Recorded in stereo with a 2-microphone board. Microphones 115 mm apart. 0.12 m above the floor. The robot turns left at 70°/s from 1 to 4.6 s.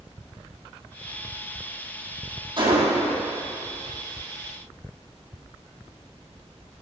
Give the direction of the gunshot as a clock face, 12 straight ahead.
1 o'clock.